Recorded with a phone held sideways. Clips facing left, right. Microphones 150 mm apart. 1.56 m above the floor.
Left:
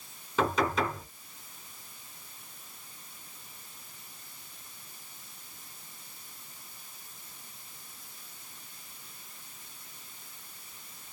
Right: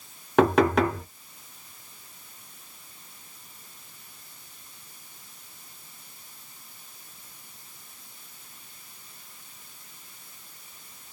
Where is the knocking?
60° right (ahead or behind), 1.1 m.